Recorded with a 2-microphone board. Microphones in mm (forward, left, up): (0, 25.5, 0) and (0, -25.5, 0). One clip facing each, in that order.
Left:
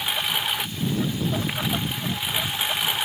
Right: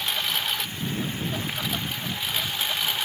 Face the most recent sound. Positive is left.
turn(degrees=15)  # may be behind; listen again after turning